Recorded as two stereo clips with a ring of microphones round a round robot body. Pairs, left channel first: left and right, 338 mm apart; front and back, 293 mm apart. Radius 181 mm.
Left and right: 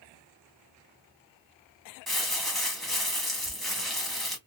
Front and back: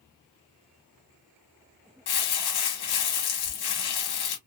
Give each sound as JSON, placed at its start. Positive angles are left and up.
{"t": 2.1, "sound": "crumpling", "azimuth_deg": 0, "distance_m": 1.3}